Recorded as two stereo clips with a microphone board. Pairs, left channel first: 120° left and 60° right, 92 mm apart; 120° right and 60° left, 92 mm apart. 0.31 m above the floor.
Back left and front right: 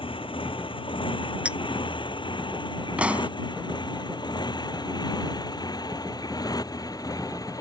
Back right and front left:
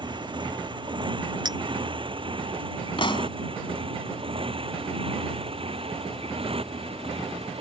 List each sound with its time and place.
0.0 s a motorcycle: 95° left; by 7.6 s 70° left
1.4 s a clink: 20° left
3.0 s a pop: 135° right